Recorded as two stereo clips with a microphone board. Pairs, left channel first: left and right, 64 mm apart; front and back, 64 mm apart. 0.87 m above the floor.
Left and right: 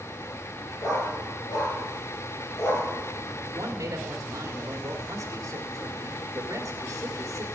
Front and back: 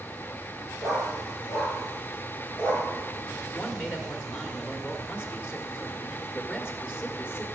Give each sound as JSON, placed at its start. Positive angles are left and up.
{"t": 0.8, "sound": "a dog barking", "azimuth_deg": 90, "distance_m": 5.5}
{"t": 3.5, "sound": "a man speaking", "azimuth_deg": -55, "distance_m": 1.7}